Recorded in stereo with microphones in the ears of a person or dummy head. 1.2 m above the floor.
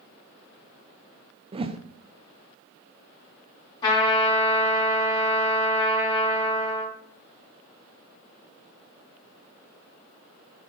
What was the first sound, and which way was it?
A whoosh, 25° right (ahead or behind).